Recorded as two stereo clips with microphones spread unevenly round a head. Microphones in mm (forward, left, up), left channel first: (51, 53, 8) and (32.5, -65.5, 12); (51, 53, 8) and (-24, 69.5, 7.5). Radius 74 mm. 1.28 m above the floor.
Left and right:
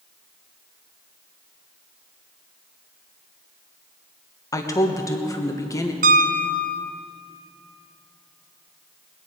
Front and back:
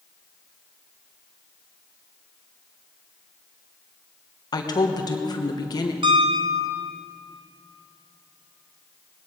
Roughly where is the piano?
Behind right.